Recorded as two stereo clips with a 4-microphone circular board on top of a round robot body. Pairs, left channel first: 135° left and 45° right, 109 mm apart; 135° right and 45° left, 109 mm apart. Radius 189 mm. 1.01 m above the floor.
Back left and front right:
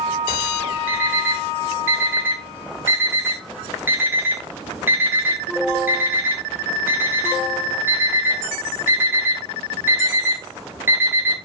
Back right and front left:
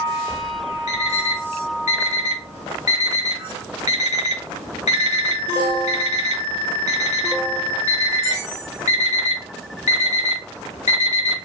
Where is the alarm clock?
115° right, 0.9 m.